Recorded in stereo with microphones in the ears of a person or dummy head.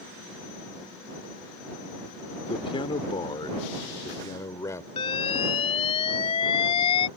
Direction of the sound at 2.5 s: 30° left (ahead or behind).